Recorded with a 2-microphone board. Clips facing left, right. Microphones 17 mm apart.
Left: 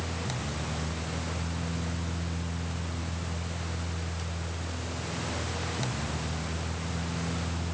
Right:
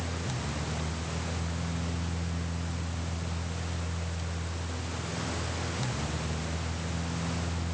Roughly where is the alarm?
No alarm in this recording.